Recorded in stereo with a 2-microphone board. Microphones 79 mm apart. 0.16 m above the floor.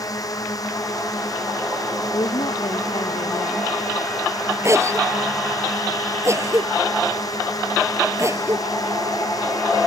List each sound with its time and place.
0.0 s a drone: 50° left (ahead or behind)
2.1 s a woman speaking: 75° left (ahead or behind)
4.6 s a cough: 35° right (ahead or behind)